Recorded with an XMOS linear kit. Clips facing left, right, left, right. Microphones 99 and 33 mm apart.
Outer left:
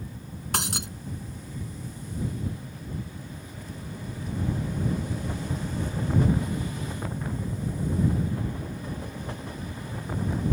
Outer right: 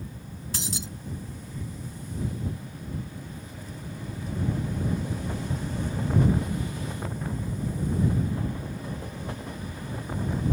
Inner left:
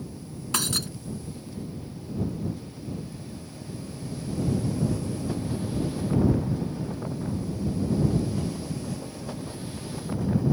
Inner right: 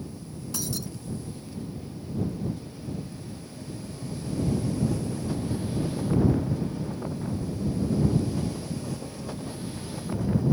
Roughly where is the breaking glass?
Left.